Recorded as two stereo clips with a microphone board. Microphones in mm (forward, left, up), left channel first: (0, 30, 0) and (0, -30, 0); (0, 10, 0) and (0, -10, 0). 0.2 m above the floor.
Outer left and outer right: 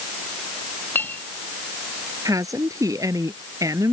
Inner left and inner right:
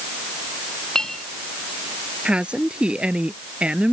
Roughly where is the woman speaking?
Right.